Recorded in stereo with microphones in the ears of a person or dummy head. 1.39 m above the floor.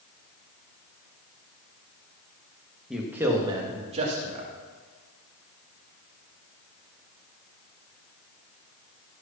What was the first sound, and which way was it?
A man speaking, centre (ahead or behind).